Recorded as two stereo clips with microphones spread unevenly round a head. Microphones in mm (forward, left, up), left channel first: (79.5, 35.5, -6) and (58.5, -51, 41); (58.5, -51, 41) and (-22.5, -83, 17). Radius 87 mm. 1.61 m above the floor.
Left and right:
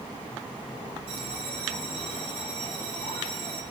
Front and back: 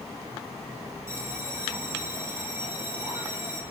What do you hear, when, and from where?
1.1 s a bell: 100° right, 4 m